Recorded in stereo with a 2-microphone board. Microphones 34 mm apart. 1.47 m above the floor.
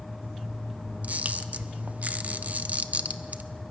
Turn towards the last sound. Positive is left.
turn(degrees=-50)  # may be behind; listen again after turning